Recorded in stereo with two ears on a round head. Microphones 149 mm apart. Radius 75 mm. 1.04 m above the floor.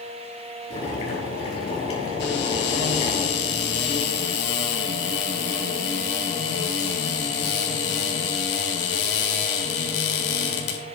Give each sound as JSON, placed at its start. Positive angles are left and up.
{"t": 0.7, "sound": "boiling", "side_deg": 35, "distance_m": 6.0}
{"t": 2.2, "sound": "a cupboard door", "side_deg": 80, "distance_m": 3.5}